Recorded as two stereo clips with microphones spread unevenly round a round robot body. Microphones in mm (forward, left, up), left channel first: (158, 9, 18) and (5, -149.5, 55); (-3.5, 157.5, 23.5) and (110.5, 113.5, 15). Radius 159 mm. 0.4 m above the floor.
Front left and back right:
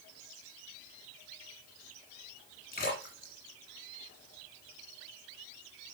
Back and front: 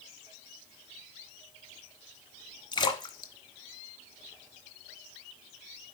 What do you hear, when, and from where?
2.7 s a splash: 105° left, 1.6 m